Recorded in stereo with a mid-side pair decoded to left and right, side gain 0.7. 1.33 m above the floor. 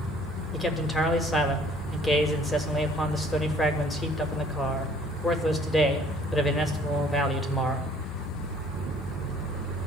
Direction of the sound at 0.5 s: 10° left.